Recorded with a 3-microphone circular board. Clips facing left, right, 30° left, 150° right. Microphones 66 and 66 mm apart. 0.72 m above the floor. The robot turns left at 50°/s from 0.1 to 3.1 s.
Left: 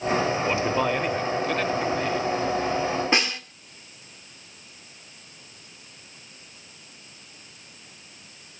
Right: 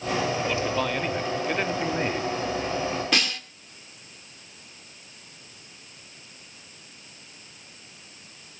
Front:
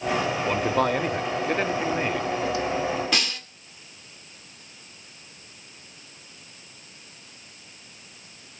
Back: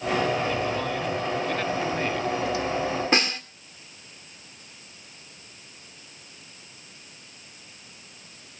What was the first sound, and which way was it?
A man speaking, 40° left.